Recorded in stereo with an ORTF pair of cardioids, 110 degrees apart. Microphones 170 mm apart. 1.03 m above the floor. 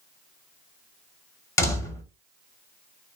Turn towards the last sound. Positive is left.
turn(degrees=15)